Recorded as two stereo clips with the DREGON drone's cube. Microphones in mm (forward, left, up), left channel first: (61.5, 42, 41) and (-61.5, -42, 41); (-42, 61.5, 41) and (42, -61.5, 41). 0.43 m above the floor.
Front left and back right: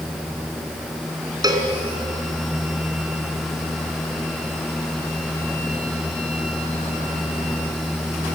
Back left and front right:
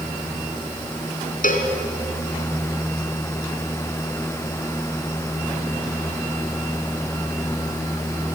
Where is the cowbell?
150° left, 3 m.